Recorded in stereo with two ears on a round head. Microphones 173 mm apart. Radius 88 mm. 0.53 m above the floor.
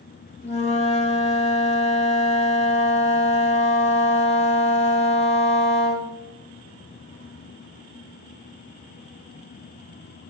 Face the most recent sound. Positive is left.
turn(degrees=30)  # may be behind; listen again after turning